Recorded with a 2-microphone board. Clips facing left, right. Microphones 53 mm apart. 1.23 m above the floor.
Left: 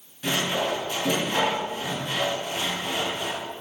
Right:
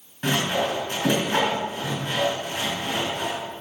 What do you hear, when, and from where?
0.2 s sawing: 45° right (ahead or behind), 5 m